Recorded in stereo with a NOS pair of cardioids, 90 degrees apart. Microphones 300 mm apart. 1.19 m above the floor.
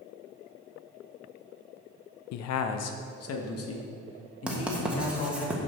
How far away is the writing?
About 1.3 m.